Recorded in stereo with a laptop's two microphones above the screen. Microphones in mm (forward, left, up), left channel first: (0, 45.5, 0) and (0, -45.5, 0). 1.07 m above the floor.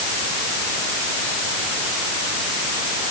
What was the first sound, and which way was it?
Only background noise.